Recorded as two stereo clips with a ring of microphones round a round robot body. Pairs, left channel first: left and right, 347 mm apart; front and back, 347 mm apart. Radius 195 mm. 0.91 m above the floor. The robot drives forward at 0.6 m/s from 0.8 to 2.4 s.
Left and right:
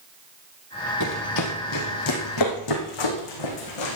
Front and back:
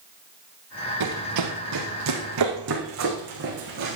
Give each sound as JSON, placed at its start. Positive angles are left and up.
{"t": 1.0, "sound": "running footsteps", "azimuth_deg": 135, "distance_m": 2.0}